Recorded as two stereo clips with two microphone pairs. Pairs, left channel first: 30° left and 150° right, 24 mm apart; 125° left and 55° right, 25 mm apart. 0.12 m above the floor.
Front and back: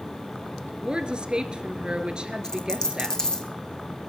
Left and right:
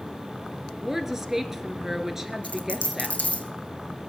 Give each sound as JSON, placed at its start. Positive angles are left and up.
{"t": 0.8, "sound": "a woman speaking", "azimuth_deg": -125, "distance_m": 1.4}
{"t": 2.4, "sound": "a dropped coin", "azimuth_deg": 95, "distance_m": 1.6}